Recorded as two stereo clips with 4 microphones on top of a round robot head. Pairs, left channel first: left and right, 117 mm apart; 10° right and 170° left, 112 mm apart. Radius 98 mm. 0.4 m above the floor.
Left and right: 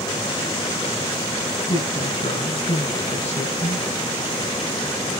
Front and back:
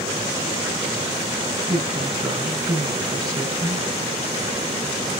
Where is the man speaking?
120° left, 7 m.